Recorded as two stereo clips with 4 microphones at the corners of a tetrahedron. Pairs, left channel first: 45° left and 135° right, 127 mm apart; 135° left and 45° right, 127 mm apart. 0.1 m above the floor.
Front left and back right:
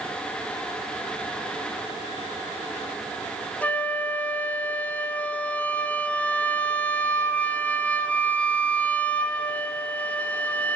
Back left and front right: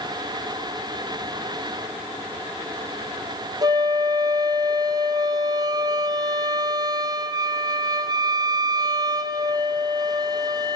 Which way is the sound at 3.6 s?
25° right.